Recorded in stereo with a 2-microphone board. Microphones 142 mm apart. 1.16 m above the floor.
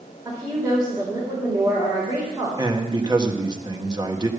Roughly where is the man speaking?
Right.